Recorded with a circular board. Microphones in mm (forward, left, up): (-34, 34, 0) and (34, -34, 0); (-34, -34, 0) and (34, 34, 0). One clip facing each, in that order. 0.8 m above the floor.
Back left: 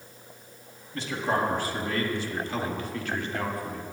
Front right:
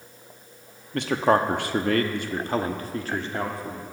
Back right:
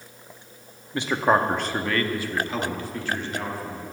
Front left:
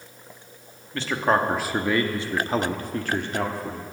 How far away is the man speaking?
About 1.0 m.